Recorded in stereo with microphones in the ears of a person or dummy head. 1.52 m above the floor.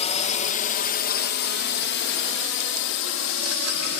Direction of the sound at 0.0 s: 30° left (ahead or behind).